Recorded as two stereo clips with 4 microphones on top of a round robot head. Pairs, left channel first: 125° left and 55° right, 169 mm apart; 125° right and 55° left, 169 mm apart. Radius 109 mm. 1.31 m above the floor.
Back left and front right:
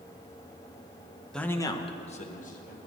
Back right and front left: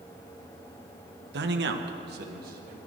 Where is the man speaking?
40° left, 1.1 m; by 2.8 s 90° left, 2 m.